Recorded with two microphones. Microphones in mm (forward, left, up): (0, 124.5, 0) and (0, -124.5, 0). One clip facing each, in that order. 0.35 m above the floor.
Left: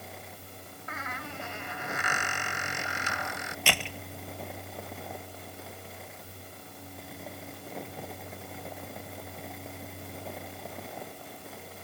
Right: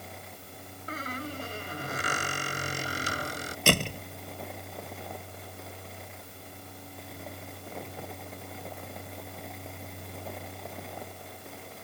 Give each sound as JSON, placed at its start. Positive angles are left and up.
{"t": 0.9, "sound": "a squeak", "side_deg": -35}
{"t": 3.7, "sound": "a door slam", "side_deg": -45}